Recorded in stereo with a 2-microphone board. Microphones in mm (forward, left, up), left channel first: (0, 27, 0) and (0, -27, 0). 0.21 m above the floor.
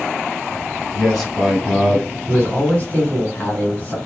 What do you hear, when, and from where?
0.9 s a man speaking: 5° left (ahead or behind), 1.5 m
2.3 s a man speaking: 35° left (ahead or behind), 1.5 m